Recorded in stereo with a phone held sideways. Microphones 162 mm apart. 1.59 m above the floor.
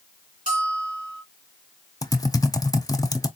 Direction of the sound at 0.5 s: 55° right (ahead or behind).